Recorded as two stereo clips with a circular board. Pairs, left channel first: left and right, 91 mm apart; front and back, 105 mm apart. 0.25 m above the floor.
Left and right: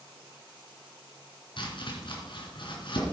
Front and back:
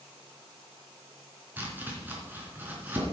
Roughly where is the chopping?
Left.